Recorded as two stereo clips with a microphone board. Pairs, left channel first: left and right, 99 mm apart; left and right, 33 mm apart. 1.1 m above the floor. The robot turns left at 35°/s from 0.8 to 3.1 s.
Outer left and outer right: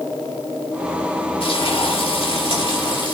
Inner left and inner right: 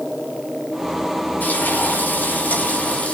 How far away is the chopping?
I don't hear chopping.